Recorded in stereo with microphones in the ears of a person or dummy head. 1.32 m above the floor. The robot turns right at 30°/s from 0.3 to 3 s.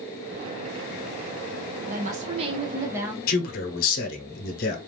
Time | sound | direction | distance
1.9 | a woman speaking | 45° right | 0.8 m
3.3 | a man speaking | 50° left (ahead or behind) | 0.9 m